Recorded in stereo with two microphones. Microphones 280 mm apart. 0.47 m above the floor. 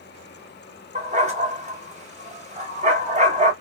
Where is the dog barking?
25° right (ahead or behind), 1.1 m.